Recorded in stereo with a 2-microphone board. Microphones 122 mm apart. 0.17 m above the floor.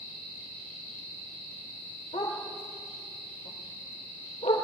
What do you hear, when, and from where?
2.1 s a dog barking: 65° left (ahead or behind), 7.5 m; by 4.6 s 85° left, 7.5 m